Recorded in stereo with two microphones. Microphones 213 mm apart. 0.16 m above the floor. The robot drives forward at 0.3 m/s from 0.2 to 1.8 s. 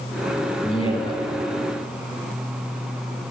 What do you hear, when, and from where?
0.6 s a man speaking: 25° left (ahead or behind), 1.4 m